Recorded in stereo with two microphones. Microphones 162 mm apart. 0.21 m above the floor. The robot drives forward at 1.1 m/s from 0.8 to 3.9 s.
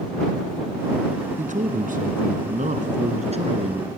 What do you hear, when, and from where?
1.4 s a man speaking: 50° right (ahead or behind), 2 m; by 3.9 s 35° right (ahead or behind), 3 m